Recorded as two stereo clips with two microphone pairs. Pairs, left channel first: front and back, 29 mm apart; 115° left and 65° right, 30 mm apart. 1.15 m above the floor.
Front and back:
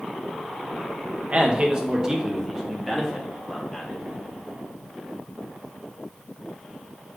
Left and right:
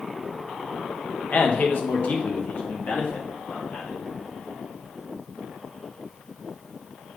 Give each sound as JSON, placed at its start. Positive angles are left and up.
{"t": 1.3, "sound": "a man speaking", "azimuth_deg": 140, "distance_m": 1.2}